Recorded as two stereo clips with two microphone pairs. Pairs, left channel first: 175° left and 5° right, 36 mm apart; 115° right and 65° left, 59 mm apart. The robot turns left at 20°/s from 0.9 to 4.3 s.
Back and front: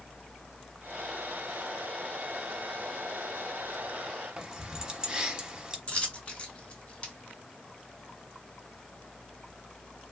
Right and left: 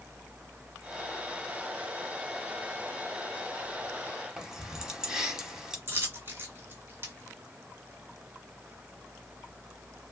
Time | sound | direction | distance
4.4 | keys jangling | straight ahead | 0.7 m
5.9 | a dropped coin | 115° left | 1.2 m